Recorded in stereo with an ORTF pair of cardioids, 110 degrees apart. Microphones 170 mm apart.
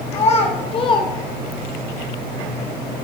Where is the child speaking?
40° left, 1.7 m; by 1.9 s 55° right, 0.5 m.